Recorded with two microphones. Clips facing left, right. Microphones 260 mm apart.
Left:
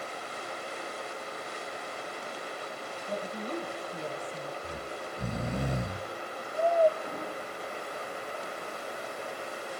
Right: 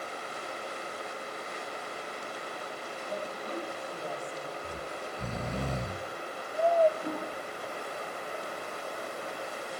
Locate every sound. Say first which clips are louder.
3.1 s a woman speaking: left 3 dB; 30° left (ahead or behind), 8.5 m; by 4.5 s 35° left (ahead or behind), 8.5 m
4.6 s snoring: even; 15° left (ahead or behind), 0.5 m
7.0 s a toilet flushing: right 2 dB; 55° right (ahead or behind), 8.5 m